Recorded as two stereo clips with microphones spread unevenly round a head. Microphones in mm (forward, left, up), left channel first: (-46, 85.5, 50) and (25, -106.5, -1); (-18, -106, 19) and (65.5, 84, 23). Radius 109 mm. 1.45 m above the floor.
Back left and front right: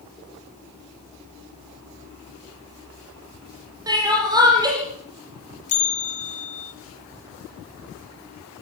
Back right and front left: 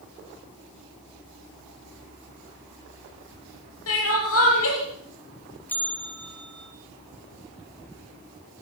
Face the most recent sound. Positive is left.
turn(degrees=165)